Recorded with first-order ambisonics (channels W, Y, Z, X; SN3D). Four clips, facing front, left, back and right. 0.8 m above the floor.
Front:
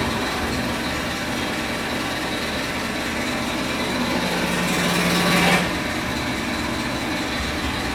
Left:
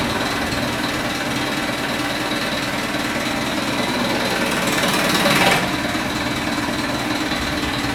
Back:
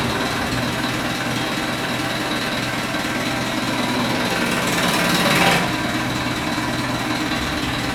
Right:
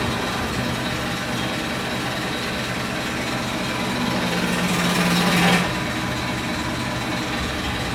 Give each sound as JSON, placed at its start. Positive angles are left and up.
{"t": 0.0, "sound": "an engine running", "azimuth_deg": 125, "distance_m": 0.7}